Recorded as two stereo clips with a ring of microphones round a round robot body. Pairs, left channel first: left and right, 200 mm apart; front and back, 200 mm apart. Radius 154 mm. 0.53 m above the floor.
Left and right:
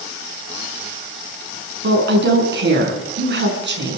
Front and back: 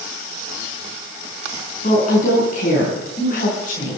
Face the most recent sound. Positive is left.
turn(degrees=-60)